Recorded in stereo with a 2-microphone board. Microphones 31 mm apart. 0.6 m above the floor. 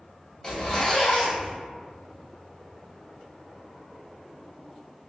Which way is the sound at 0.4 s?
15° left (ahead or behind).